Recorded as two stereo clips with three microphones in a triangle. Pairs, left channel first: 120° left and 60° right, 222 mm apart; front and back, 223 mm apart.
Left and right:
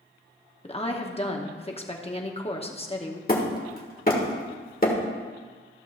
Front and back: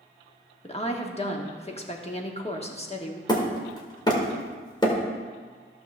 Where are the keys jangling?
I don't hear keys jangling.